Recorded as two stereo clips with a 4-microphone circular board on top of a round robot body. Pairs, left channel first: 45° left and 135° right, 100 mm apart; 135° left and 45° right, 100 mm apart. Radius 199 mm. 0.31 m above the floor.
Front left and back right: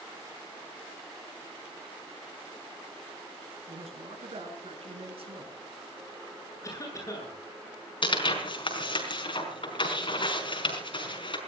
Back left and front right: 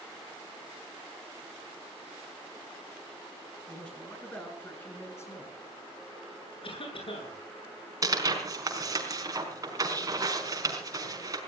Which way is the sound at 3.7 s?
145° right.